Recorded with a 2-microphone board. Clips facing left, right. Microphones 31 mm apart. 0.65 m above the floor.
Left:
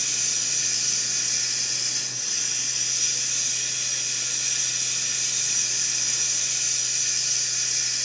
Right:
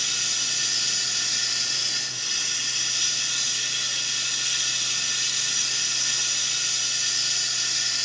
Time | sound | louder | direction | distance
0.0 | running water | right 3 dB | 80° right | 5 m